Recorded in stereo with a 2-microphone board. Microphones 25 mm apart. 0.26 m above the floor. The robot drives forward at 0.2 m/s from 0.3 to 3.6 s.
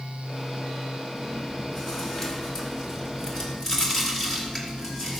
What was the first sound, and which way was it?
Chewing, 25° left (ahead or behind).